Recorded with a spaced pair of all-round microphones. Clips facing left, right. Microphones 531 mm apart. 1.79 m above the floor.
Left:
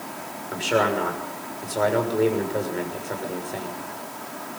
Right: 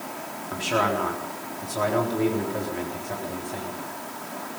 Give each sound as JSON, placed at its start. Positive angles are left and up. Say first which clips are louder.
{"t": 0.5, "sound": "a man speaking", "louder": "left 3 dB", "side_deg": -25, "distance_m": 6.5}